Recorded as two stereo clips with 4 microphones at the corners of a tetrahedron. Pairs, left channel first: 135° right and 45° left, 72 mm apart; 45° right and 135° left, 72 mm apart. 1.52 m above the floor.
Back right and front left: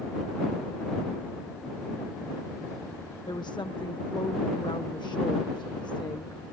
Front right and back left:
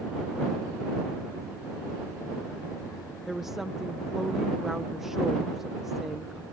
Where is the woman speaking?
140° right.